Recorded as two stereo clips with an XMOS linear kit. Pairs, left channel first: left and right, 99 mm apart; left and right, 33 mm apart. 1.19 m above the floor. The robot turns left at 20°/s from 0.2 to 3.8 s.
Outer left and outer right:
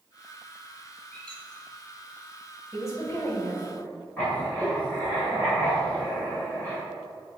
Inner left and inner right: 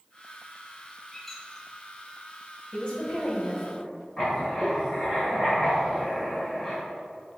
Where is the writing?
15° left (ahead or behind), 2 m.